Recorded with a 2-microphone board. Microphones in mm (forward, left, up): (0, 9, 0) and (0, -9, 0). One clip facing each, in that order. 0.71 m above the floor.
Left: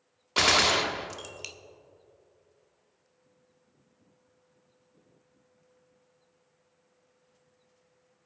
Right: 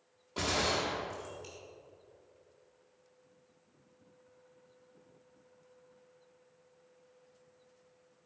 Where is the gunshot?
55° left (ahead or behind), 0.7 m.